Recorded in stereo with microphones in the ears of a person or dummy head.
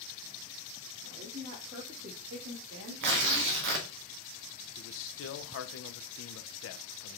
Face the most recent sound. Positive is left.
turn(degrees=70)  # may be behind; listen again after turning